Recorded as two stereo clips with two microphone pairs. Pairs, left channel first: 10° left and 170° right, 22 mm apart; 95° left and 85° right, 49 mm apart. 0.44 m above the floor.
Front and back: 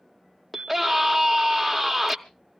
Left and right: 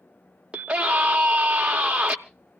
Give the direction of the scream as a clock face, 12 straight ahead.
2 o'clock.